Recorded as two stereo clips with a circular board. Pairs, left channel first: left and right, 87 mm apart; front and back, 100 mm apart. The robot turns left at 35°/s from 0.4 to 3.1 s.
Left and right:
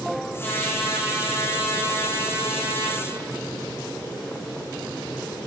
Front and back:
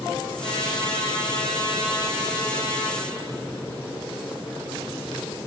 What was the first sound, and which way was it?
A trumpet, 25° left.